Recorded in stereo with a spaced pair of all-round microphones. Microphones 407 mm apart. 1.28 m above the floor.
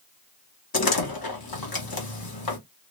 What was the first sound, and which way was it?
A door slam, 60° left (ahead or behind).